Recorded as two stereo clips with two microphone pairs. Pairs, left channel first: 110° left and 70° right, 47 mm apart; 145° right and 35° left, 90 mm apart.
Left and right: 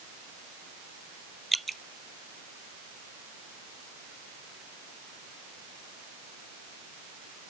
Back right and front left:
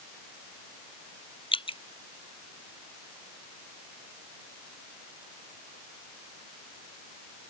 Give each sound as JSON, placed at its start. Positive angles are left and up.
{"t": 1.5, "sound": "dripping", "azimuth_deg": -160}